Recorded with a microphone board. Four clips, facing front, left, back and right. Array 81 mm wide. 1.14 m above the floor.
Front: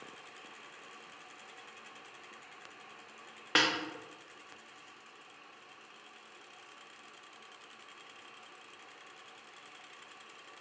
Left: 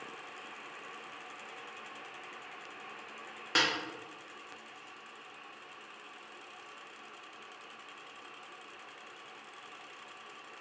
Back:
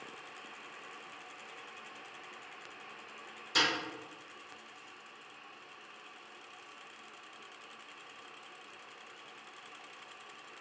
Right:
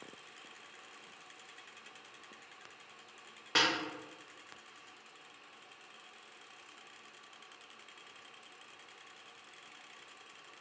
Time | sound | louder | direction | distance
3.5 | a snare drum | left 1 dB, front 2 dB | 5° left | 0.5 m